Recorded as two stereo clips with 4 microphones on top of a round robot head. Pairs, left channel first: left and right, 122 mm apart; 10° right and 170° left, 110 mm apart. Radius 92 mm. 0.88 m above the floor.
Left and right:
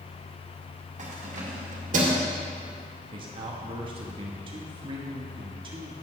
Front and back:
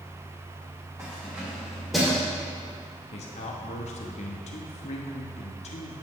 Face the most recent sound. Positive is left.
turn(degrees=-35)